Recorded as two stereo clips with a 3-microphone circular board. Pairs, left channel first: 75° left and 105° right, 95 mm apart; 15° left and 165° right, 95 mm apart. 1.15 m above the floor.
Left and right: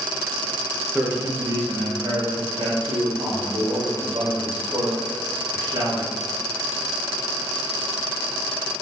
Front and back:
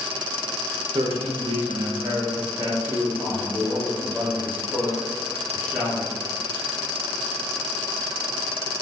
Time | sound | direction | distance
0.9 | a man speaking | straight behind | 0.7 m